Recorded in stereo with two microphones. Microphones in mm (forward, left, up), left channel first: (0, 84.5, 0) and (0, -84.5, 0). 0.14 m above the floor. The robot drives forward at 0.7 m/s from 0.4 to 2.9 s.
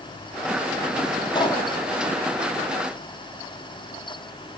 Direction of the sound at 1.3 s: 25° left (ahead or behind).